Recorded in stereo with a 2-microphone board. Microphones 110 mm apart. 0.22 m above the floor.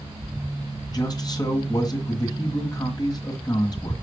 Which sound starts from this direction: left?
A man speaking, at 0.9 s.